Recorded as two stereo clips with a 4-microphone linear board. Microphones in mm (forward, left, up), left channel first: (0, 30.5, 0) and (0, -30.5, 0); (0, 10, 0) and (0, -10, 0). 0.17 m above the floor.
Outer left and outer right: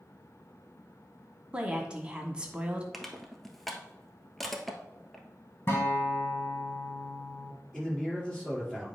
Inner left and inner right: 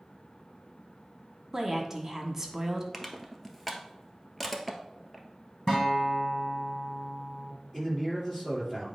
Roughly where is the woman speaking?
Centre.